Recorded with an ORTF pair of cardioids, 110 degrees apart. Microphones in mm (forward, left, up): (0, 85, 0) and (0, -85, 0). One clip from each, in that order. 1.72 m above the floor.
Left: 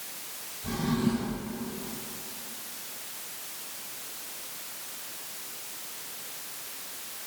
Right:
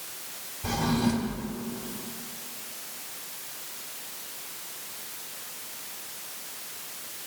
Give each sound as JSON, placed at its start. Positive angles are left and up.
{"t": 0.6, "sound": "a drawer", "azimuth_deg": -70, "distance_m": 4.0}